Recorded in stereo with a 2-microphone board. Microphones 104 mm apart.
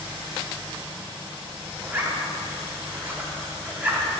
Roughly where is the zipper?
Centre.